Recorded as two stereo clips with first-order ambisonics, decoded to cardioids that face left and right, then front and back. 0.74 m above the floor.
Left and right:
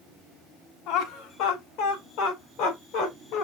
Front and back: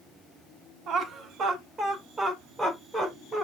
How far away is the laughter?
About 1.5 m.